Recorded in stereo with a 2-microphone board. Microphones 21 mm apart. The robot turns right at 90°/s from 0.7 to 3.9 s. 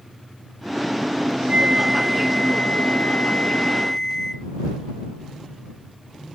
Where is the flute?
55° right; by 4.5 s 160° left.